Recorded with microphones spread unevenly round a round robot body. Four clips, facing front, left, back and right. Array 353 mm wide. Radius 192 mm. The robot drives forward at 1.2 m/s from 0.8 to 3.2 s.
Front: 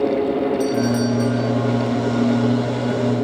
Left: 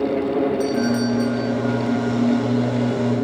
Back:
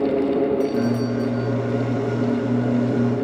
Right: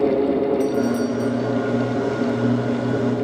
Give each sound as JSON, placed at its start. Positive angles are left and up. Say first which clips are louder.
{"t": 0.6, "sound": "a doorbell", "louder": "even, front 2 dB", "azimuth_deg": 50}